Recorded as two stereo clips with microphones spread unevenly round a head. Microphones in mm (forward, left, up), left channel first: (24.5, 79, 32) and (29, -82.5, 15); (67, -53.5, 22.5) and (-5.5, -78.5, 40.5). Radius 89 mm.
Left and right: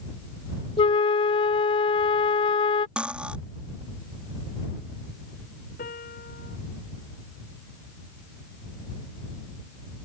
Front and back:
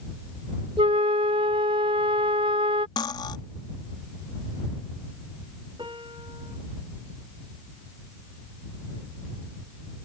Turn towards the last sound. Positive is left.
turn(degrees=135)